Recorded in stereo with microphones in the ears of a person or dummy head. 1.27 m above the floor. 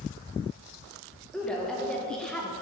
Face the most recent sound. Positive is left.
turn(degrees=5)  # may be behind; listen again after turning